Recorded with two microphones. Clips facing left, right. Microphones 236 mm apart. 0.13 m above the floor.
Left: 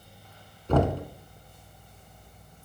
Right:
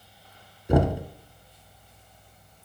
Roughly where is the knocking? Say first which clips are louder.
Right 2 dB; centre.